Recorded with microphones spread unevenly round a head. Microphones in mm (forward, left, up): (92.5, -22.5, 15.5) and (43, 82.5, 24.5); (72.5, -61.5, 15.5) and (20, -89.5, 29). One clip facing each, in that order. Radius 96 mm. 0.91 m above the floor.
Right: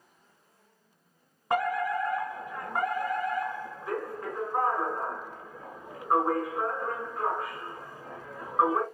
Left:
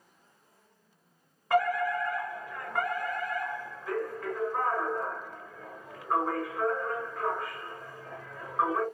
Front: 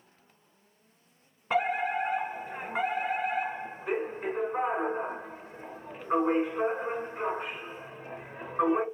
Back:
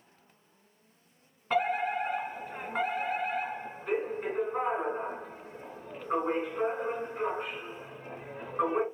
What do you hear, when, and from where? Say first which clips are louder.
1.5 s a fire alarm: left 1 dB, front 1 dB; 25° right, 1.5 m